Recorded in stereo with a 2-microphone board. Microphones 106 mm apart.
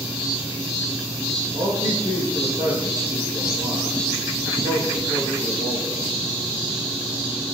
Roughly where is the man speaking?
Right.